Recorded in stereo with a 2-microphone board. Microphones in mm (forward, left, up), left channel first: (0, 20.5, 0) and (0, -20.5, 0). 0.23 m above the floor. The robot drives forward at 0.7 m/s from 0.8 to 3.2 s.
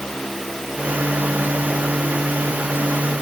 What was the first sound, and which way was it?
Only background noise.